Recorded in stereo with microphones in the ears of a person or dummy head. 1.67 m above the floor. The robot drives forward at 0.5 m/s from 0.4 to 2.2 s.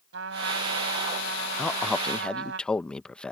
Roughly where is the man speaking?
Centre.